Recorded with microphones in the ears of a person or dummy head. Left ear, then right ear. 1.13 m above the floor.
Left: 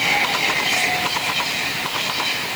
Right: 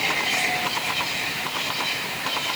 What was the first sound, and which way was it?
Only background noise.